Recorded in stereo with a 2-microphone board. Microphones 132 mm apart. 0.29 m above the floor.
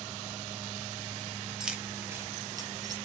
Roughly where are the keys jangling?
Centre.